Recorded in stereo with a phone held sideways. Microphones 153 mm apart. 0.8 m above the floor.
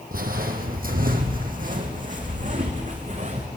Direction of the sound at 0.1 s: 70° right (ahead or behind).